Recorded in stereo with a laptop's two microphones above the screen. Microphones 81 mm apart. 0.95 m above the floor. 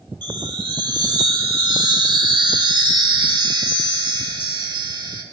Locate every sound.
0.2 s a chime: 60° right (ahead or behind), 1.4 m